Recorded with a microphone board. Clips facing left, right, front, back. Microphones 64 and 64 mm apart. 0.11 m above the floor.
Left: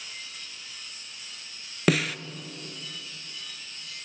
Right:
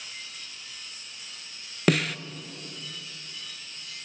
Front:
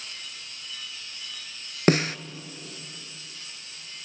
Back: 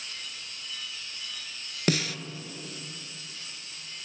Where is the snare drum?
Straight ahead, 0.6 m.